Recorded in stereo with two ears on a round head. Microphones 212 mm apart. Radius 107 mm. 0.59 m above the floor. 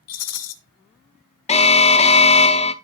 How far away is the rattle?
About 1.5 m.